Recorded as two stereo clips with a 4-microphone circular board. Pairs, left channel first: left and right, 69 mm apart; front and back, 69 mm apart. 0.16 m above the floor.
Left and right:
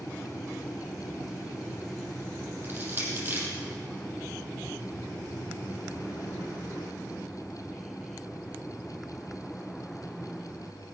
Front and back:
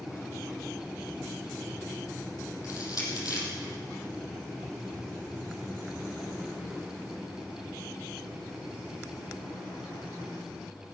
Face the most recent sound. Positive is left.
turn(degrees=-30)